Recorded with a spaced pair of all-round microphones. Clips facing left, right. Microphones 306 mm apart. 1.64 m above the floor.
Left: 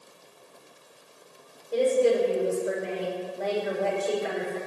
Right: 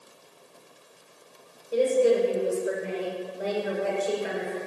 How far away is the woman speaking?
About 5.5 m.